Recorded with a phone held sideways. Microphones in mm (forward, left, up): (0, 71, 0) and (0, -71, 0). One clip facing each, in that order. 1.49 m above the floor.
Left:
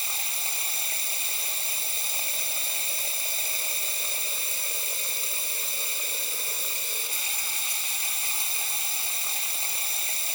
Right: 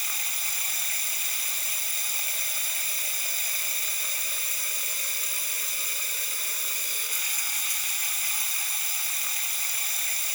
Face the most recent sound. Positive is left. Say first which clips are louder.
# left 2 dB
turn(degrees=25)  # may be behind; listen again after turning